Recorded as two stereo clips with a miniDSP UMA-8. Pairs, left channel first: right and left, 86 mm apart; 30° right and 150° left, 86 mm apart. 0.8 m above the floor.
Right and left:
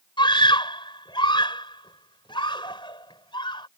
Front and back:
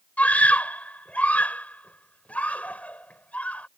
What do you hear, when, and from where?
0.2 s a scream: 105° right